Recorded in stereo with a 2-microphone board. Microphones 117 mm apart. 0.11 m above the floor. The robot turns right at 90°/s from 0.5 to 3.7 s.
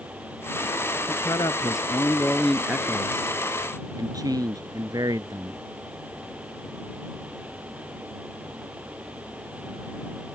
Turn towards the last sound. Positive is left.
turn(degrees=-70)